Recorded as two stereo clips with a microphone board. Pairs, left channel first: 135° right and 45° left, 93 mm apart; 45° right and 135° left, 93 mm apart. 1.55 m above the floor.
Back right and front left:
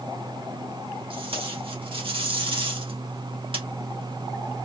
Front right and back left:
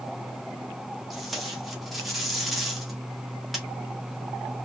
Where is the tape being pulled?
45° left, 1.6 m.